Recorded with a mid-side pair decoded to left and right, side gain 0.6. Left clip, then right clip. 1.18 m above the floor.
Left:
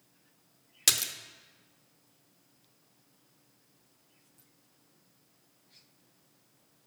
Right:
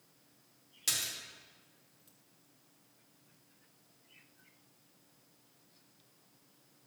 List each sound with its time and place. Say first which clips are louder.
0.9 s a splash: left 7 dB; 55° left, 0.6 m